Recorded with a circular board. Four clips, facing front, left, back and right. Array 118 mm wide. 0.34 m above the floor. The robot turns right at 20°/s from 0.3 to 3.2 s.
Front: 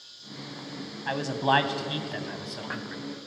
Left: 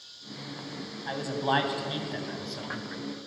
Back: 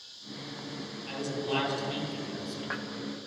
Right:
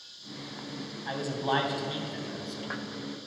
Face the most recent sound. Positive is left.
turn(degrees=40)